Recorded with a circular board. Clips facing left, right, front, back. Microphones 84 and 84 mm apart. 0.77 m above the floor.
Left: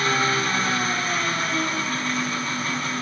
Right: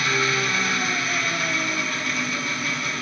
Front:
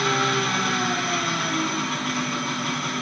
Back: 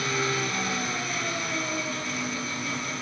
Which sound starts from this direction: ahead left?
An engine running, at 0.0 s.